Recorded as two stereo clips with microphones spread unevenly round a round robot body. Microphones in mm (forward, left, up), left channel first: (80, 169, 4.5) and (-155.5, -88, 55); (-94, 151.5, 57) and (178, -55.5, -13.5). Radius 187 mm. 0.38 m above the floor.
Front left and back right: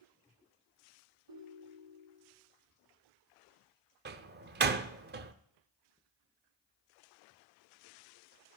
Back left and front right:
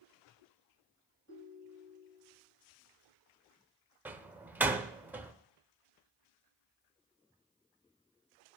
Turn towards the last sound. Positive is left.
turn(degrees=-90)